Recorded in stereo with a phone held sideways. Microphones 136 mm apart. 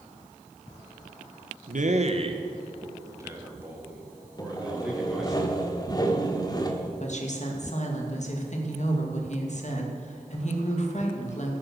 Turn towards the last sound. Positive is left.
turn(degrees=55)  # may be behind; listen again after turning